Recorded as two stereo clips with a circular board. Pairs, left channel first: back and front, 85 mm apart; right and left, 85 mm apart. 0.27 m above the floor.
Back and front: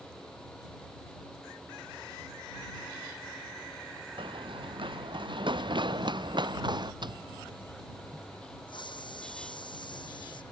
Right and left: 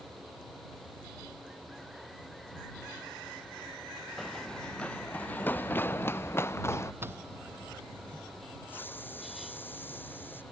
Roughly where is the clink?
No clink in this recording.